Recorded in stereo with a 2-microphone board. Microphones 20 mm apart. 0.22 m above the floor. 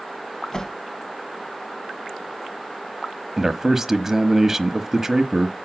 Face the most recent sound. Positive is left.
turn(degrees=-20)  # may be behind; listen again after turning